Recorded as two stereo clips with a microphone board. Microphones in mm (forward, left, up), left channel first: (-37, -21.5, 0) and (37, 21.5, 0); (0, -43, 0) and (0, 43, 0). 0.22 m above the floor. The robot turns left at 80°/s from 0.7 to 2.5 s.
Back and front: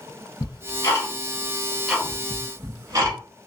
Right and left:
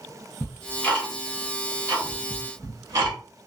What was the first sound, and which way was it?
Ticking, 145° right.